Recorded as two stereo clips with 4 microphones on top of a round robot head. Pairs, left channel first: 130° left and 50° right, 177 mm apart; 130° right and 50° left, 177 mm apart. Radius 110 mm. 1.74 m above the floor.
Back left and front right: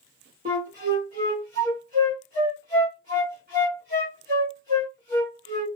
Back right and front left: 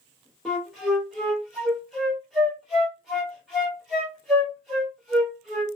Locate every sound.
0.5 s a flute: 35° right, 1.2 m